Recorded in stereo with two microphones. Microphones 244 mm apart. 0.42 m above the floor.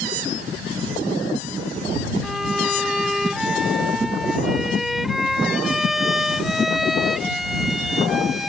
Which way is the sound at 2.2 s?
Centre (ahead or behind).